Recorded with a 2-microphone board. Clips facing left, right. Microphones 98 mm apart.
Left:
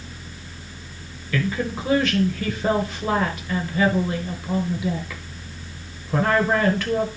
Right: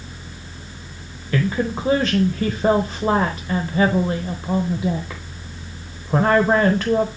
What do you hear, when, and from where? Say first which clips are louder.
1.3 s a woman speaking: right 3 dB; 35° right (ahead or behind), 1.0 m